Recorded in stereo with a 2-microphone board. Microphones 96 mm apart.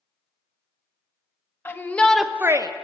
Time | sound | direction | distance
1.6 | a shout | 25° left (ahead or behind) | 1.4 m